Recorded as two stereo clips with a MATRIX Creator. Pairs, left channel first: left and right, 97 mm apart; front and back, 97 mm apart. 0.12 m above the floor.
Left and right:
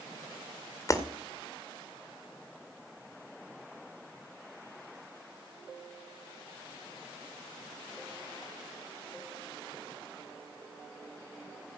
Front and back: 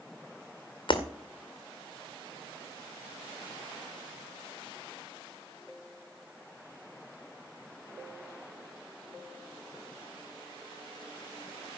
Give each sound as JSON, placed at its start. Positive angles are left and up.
{"t": 0.9, "sound": "breaking glass", "azimuth_deg": 35, "distance_m": 2.0}